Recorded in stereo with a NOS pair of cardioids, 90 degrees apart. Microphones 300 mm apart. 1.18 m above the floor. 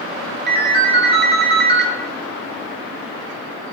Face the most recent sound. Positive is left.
turn(degrees=-35)